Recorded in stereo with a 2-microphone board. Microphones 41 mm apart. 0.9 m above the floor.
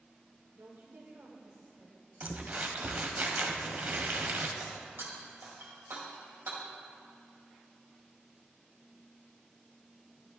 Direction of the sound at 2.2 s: 45° right (ahead or behind).